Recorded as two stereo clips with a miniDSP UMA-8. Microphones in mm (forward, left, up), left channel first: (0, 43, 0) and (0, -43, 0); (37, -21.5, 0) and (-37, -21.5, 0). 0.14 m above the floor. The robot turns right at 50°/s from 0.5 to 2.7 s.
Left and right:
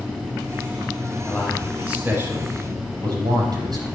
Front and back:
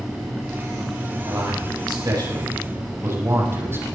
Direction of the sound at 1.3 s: 160° left.